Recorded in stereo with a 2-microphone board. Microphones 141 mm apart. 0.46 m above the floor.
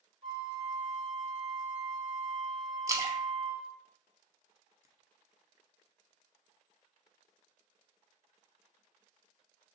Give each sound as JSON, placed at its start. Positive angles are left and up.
{"t": 0.2, "sound": "a flute", "side_deg": -35, "distance_m": 1.3}
{"t": 2.9, "sound": "a splash", "side_deg": -25, "distance_m": 0.6}